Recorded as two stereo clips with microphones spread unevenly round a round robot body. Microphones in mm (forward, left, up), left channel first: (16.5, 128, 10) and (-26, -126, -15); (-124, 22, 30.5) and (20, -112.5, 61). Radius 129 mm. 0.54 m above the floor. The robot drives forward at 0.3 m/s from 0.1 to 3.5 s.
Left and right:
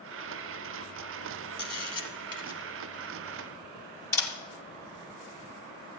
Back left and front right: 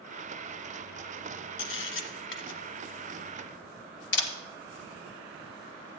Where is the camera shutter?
155° left, 1.8 m; by 4.3 s 160° left, 2.5 m.